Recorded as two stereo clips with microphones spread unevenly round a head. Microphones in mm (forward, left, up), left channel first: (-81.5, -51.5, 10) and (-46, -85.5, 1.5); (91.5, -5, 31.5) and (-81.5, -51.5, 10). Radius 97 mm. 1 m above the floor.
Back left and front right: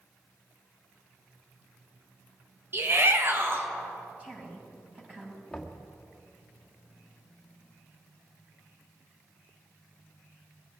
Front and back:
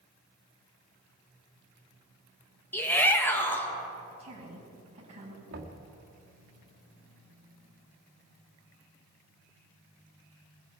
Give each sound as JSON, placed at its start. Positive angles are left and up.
{"t": 2.7, "sound": "a shout", "azimuth_deg": -70, "distance_m": 1.4}
{"t": 4.2, "sound": "a woman speaking", "azimuth_deg": -105, "distance_m": 6.5}
{"t": 5.5, "sound": "knocking", "azimuth_deg": -140, "distance_m": 2.0}